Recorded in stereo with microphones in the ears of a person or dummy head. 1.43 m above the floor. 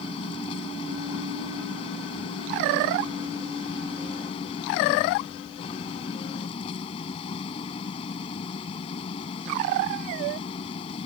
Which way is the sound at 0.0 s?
30° left (ahead or behind).